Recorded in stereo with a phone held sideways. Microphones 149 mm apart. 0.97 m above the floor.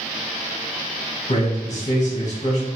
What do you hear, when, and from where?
1.3 s a man speaking: 50° left (ahead or behind), 1.3 m